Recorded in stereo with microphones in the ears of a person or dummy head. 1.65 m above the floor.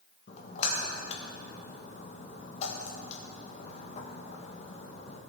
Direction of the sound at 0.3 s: 40° left (ahead or behind).